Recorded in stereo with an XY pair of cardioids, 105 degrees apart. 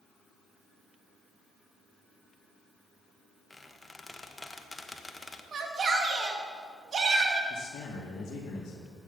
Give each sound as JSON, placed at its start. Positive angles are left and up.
{"t": 3.5, "sound": "a squeak", "azimuth_deg": 15, "distance_m": 1.0}
{"t": 5.5, "sound": "a shout", "azimuth_deg": -45, "distance_m": 2.5}
{"t": 7.5, "sound": "a man speaking", "azimuth_deg": 65, "distance_m": 2.0}